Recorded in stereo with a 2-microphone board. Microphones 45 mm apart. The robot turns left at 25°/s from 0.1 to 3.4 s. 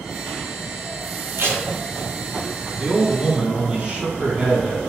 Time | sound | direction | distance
1.4 | tape being pulled | 55° right (ahead or behind) | 0.9 m
2.8 | a man speaking | 35° right (ahead or behind) | 1.9 m